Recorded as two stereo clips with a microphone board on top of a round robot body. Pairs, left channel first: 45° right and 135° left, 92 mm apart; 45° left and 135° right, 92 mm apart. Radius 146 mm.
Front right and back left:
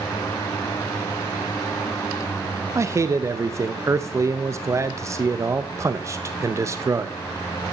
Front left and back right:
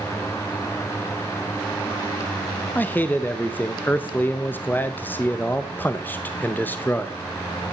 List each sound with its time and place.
2.8 s a man speaking: 105° left, 0.9 m